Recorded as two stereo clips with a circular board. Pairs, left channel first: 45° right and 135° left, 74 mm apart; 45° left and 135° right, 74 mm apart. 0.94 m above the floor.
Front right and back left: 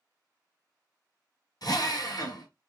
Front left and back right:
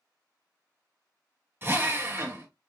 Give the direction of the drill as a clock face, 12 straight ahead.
2 o'clock.